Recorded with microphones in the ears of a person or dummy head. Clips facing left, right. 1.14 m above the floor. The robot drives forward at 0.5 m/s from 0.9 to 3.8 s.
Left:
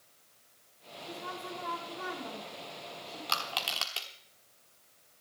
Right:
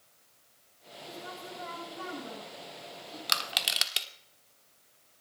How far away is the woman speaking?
About 6.5 m.